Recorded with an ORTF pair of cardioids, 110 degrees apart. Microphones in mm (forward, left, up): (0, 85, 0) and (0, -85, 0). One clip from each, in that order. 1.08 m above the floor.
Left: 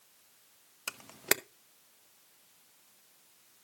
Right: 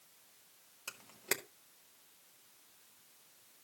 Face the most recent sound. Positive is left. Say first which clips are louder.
# left 7 dB
turn(degrees=35)